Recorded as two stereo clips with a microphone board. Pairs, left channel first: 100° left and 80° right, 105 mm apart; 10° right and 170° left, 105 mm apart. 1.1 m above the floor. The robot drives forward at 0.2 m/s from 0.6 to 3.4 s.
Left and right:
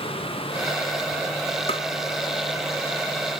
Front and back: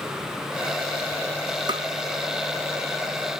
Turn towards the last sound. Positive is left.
turn(degrees=140)